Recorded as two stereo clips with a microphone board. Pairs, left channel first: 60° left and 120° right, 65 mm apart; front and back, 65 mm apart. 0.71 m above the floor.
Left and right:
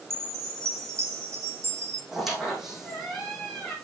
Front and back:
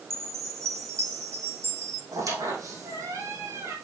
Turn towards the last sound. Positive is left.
turn(degrees=155)